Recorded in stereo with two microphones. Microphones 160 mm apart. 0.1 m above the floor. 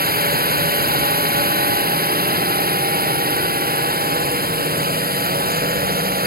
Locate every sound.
0.0 s a drone: 65° right (ahead or behind)